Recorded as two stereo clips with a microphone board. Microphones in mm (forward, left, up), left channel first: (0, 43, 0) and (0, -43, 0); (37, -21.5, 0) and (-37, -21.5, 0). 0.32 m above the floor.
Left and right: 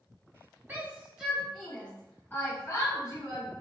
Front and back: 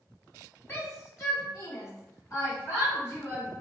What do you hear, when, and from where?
0.7 s a shout: 35° right, 1.4 m; by 3.5 s 45° left, 2.5 m